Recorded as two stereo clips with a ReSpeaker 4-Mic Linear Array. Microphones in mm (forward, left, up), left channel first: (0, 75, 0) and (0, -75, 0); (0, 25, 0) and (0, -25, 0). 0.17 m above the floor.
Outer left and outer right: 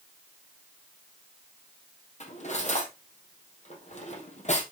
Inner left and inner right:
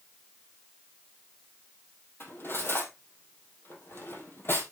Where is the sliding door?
I don't hear a sliding door.